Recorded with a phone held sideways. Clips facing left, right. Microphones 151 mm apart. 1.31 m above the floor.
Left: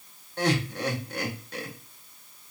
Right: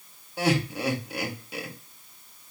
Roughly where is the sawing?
No sawing in this recording.